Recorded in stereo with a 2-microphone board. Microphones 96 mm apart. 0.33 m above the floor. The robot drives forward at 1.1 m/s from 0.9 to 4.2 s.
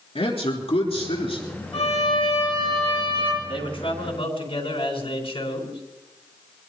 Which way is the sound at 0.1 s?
75° left (ahead or behind).